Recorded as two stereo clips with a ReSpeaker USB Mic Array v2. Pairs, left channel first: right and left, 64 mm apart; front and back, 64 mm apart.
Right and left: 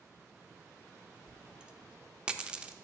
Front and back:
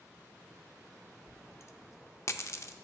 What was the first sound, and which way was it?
A dropped coin, 20° left.